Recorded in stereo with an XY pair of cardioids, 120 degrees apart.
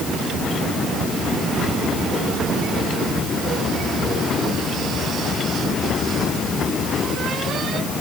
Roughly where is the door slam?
No door slam in this recording.